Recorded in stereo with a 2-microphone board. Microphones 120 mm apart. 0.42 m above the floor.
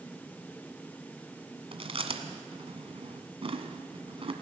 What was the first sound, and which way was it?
Chewing, 55° right (ahead or behind).